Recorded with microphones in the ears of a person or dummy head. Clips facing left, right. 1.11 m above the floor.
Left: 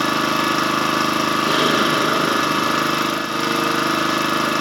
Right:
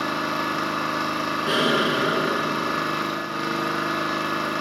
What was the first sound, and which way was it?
An engine running, 65° left (ahead or behind).